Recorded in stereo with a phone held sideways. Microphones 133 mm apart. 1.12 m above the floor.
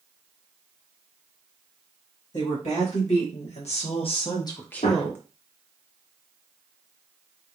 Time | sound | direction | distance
2.3 | a woman speaking | 70° left (ahead or behind) | 2 m
4.8 | a gunshot | 75° left (ahead or behind) | 1.6 m